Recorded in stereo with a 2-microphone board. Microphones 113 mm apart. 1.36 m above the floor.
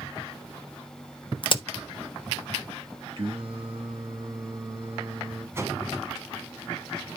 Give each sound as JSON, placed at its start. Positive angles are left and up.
{"t": 1.4, "sound": "a crack", "side_deg": 45, "distance_m": 0.9}
{"t": 3.2, "sound": "singing", "side_deg": -55, "distance_m": 3.0}
{"t": 5.5, "sound": "a whoosh", "side_deg": -25, "distance_m": 2.0}